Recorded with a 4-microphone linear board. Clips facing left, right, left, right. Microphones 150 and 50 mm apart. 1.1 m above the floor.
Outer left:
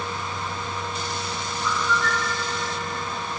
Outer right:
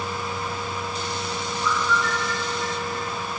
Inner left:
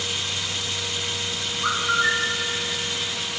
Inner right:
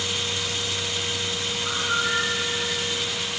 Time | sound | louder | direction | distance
1.6 | a bird | even, inner left 5 dB | 65° left (ahead or behind) | 4 m